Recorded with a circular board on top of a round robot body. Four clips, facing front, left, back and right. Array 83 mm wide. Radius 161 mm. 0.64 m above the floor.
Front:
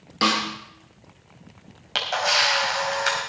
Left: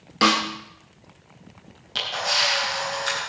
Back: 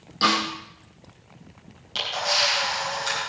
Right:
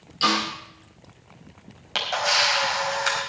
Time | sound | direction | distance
0.2 | a snare drum | 70° left | 3.5 m
1.9 | a camera shutter | 35° right | 5.5 m